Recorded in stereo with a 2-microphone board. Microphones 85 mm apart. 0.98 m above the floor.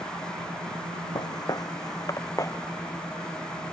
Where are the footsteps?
55° left (ahead or behind); by 3.7 s 30° left (ahead or behind).